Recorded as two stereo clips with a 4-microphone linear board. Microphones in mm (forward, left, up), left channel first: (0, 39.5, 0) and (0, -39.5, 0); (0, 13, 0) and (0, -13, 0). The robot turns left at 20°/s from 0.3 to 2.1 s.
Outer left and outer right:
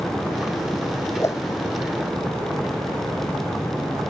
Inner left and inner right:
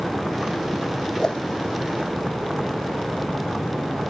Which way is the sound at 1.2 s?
35° left (ahead or behind).